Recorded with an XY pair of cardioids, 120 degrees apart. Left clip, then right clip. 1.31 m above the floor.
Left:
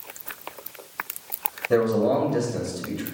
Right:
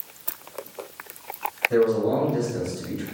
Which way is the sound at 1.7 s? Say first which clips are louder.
Left 1 dB; 65° left.